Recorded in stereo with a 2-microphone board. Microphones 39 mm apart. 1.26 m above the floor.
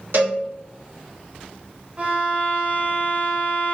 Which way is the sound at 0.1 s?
80° right.